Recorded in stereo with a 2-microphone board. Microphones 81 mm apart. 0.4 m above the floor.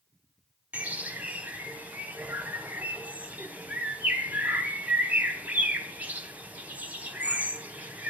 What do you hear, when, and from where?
0.7 s a bird: 20° right (ahead or behind), 2 m